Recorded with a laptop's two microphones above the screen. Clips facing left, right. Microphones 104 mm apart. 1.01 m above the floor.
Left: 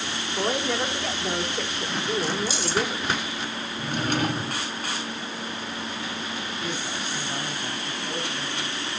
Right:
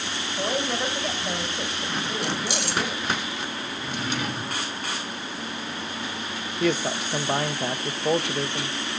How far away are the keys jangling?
About 0.5 m.